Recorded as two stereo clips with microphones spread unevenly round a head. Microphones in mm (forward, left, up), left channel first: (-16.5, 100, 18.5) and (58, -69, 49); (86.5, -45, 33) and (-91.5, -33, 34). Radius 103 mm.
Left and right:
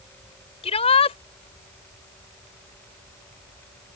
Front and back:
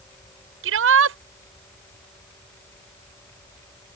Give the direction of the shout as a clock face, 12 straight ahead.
6 o'clock.